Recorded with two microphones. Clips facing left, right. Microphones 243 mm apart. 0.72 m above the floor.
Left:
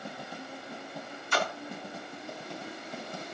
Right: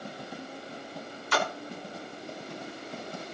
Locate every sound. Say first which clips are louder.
1.3 s a splash: right 2 dB; 75° right (ahead or behind), 2.5 m